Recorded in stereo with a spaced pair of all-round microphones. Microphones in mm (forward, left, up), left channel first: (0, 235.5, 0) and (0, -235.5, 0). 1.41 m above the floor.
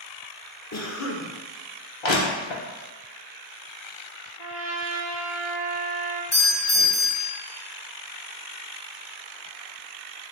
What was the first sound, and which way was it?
A cough, 35° left (ahead or behind).